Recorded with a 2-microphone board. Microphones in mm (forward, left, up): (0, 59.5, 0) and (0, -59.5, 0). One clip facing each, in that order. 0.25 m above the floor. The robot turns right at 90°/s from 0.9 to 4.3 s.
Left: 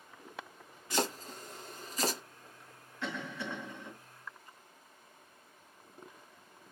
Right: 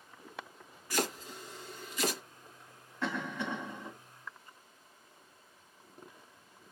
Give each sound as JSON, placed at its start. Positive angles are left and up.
{"t": 0.9, "sound": "chopping", "side_deg": 20, "distance_m": 1.1}
{"t": 3.0, "sound": "a cough", "azimuth_deg": -125, "distance_m": 2.0}